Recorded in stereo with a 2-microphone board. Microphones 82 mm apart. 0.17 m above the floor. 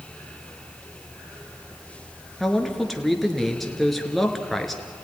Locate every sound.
2.4 s a man speaking: centre (ahead or behind), 2.5 m